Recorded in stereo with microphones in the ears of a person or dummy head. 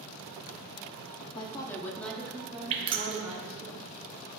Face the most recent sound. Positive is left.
turn(degrees=-30)  # may be behind; listen again after turning